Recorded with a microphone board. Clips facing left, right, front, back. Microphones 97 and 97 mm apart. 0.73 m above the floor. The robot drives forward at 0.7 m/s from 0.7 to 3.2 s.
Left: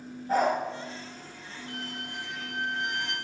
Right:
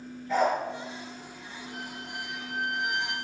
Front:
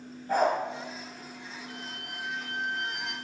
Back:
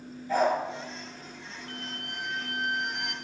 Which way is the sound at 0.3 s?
40° left.